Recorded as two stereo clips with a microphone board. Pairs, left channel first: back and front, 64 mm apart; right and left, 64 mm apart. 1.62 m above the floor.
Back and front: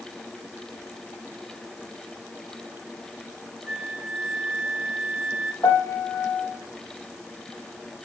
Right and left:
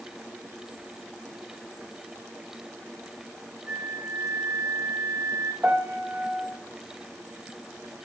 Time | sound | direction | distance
3.7 | a flute | 50° left | 1.6 m
5.6 | a piano | 155° left | 1.3 m